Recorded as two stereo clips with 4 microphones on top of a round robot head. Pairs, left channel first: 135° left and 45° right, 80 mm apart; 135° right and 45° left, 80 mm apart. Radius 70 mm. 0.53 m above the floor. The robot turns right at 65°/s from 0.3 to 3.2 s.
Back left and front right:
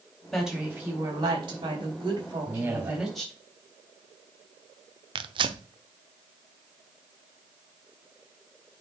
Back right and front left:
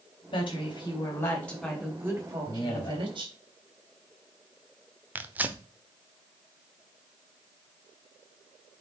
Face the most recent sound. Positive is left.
turn(degrees=-25)